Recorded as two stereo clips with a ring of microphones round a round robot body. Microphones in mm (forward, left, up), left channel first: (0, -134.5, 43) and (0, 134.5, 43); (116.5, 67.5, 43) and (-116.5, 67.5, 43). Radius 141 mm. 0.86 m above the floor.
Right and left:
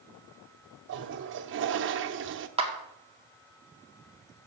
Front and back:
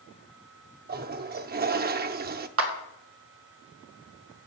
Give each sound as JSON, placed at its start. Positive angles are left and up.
{"t": 0.9, "sound": "a toilet flushing", "azimuth_deg": 135, "distance_m": 0.7}
{"t": 2.6, "sound": "a clap", "azimuth_deg": 160, "distance_m": 2.0}